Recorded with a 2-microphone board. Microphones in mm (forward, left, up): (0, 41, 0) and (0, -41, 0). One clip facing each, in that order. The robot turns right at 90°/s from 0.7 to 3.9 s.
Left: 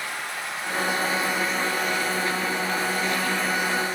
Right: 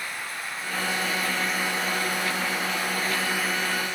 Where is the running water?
110° left, 1.3 m; by 4.0 s 35° left, 1.3 m.